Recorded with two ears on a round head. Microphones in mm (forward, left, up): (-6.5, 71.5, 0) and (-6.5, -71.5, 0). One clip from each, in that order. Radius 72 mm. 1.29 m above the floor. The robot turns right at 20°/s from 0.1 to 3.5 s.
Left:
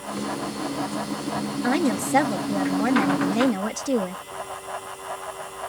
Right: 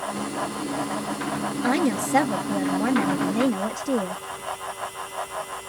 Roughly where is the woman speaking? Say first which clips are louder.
Even; ahead.